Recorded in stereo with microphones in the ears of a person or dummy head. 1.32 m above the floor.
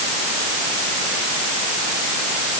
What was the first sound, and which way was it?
Only background noise.